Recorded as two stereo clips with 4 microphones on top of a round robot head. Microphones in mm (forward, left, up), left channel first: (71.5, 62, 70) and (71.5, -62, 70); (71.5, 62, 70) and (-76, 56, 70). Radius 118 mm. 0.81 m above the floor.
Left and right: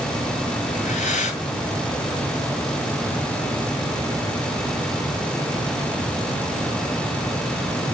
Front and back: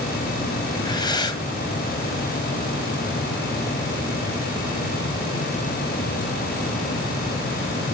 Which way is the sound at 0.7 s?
65° left.